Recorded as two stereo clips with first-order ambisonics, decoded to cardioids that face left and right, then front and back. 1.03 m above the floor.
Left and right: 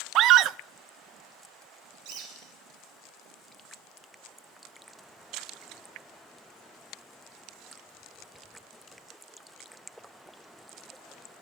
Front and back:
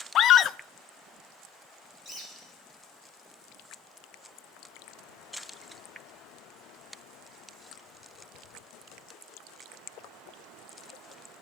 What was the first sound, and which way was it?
A scream, 50° right.